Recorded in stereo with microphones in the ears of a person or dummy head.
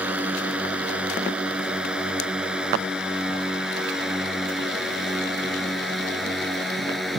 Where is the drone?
10° right (ahead or behind); by 7.2 s 5° right (ahead or behind).